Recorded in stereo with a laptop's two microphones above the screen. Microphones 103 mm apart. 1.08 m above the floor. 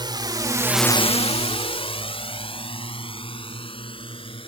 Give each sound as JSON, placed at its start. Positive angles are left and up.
{"t": 0.0, "sound": "a drone", "side_deg": -45}